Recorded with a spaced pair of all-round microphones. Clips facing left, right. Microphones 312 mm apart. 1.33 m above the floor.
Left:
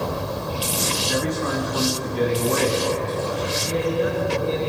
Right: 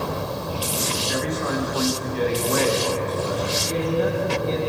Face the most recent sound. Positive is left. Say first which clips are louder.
# left 1 dB
turn(degrees=30)  # may be behind; listen again after turning